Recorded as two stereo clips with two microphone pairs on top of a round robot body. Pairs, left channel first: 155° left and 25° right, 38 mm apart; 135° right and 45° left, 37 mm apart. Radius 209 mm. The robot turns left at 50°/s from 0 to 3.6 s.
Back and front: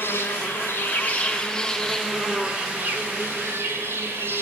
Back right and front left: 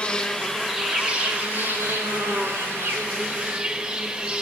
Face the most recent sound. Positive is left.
turn(degrees=-15)